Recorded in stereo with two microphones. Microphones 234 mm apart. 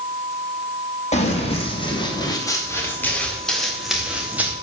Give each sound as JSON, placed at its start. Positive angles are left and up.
{"t": 1.1, "sound": "running footsteps", "side_deg": 30, "distance_m": 3.5}